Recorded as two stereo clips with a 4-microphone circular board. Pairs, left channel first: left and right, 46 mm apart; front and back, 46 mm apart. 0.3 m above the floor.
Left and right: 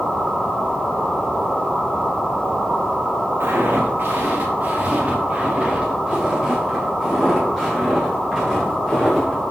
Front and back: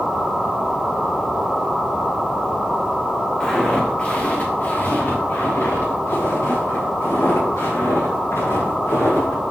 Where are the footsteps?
75° right, 2.5 m; by 9.4 s 5° left, 7 m.